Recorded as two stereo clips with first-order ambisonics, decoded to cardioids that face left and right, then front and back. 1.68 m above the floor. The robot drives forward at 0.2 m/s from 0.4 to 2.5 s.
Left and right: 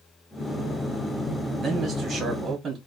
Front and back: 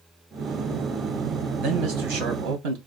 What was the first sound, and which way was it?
A man speaking, 160° right.